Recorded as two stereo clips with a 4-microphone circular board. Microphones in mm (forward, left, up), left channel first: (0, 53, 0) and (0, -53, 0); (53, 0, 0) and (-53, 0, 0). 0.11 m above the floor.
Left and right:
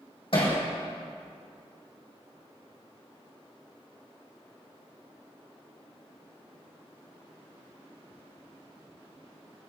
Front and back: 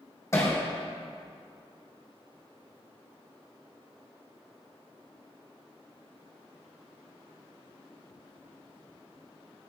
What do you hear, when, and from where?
0.3 s hammering: 60° left, 3.5 m